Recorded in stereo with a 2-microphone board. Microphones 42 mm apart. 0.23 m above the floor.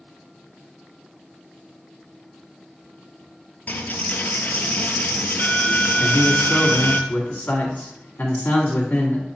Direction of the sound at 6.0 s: 50° left (ahead or behind).